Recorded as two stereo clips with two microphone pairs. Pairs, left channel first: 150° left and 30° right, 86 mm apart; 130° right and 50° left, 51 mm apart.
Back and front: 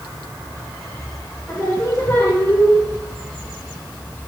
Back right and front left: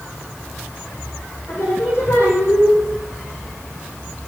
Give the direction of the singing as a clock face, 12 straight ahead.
5 o'clock.